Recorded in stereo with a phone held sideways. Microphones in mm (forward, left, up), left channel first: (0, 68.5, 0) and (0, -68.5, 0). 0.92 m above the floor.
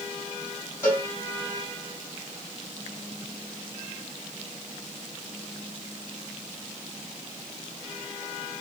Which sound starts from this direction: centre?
A cowbell, at 0.8 s.